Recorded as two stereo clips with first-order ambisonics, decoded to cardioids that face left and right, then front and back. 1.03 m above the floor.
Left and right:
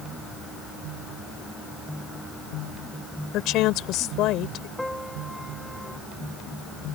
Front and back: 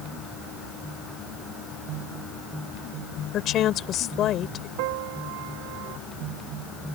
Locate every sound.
3.3 s a woman speaking: 50° left
4.8 s a piano: straight behind